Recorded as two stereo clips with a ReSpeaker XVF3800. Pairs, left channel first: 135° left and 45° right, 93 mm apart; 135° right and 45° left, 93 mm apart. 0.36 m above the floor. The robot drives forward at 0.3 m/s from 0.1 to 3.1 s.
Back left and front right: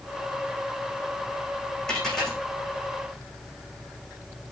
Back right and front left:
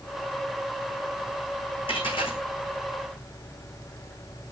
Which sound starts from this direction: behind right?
A dropped coin, at 1.9 s.